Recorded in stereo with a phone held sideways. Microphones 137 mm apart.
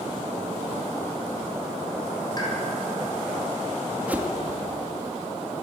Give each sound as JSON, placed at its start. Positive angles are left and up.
{"t": 2.4, "sound": "a pop", "side_deg": 30, "distance_m": 7.0}
{"t": 4.1, "sound": "a whoosh", "side_deg": -10, "distance_m": 1.6}